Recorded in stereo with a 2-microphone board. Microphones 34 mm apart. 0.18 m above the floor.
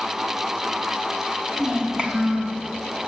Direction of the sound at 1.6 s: 20° right (ahead or behind).